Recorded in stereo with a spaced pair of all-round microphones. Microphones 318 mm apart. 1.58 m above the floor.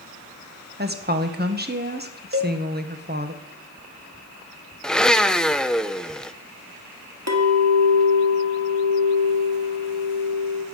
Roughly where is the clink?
Right.